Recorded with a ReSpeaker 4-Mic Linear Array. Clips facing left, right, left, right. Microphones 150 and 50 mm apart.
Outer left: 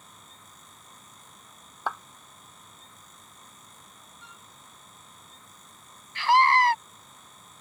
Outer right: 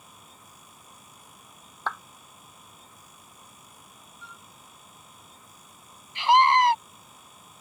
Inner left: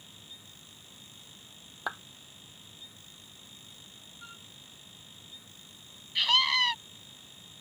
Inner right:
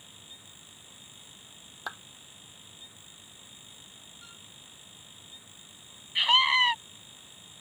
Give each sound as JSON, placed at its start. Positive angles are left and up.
{"t": 1.9, "sound": "a clap", "side_deg": 10}
{"t": 4.2, "sound": "a flute", "side_deg": 20}
{"t": 6.2, "sound": "a scream", "side_deg": -20}